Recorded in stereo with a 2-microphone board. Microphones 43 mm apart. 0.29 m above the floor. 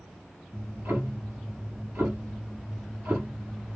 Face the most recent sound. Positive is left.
turn(degrees=-60)  # may be behind; listen again after turning